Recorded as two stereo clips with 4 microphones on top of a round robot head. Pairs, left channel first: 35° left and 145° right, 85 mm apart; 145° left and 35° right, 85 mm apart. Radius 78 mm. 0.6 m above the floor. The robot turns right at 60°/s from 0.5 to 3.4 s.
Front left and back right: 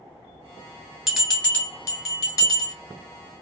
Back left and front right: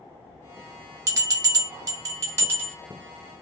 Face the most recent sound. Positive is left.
turn(degrees=75)